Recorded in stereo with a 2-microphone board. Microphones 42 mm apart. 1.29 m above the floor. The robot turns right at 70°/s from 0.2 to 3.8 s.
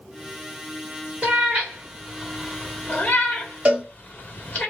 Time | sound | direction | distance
1.2 | a cat meowing | 50° right (ahead or behind) | 1.2 m
3.6 | a cowbell | 40° right (ahead or behind) | 1.6 m